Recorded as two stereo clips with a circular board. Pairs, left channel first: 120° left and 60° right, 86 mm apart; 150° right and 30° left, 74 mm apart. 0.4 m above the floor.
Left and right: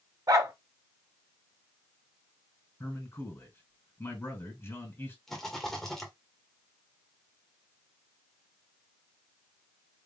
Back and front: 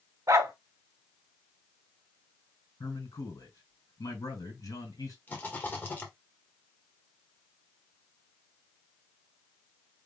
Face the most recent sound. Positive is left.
turn(degrees=-160)